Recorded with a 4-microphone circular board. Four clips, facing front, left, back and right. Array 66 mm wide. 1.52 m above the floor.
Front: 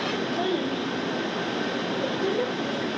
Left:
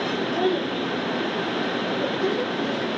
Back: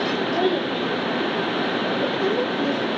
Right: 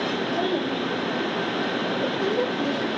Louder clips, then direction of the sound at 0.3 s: Left 3 dB, back 5 dB; 165° left.